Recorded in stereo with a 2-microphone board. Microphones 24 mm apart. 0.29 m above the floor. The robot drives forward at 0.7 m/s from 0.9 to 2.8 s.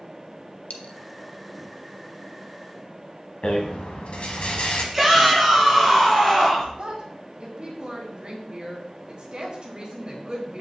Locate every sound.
0.7 s a dropped coin: 70° left (ahead or behind), 0.9 m
3.4 s a rattle: 55° left (ahead or behind), 1.2 m
4.9 s a shout: 5° right (ahead or behind), 3 m
6.8 s a woman speaking: 35° right (ahead or behind), 1.8 m